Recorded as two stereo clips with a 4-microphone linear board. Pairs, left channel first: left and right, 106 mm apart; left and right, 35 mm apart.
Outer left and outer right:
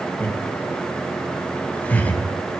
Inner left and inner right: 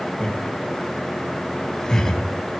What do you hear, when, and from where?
0.2 s laughter: 15° left (ahead or behind), 2.5 m